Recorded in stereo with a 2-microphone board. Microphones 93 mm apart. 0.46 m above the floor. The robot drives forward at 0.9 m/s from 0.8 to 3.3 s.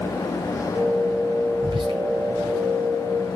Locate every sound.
1.6 s whispering: 60° right (ahead or behind), 3.5 m; by 2.0 s 65° right (ahead or behind), 3.5 m